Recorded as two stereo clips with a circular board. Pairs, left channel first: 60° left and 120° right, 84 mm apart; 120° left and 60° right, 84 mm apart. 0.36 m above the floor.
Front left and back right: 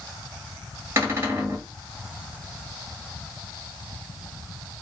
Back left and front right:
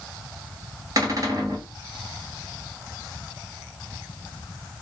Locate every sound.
1.0 s a cupboard door: 75° right, 1.8 m